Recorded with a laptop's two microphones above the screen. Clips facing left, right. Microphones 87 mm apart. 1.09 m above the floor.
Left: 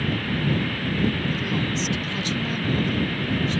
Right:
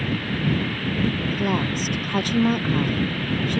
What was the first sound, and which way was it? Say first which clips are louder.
A woman speaking: right 3 dB; 50° right (ahead or behind).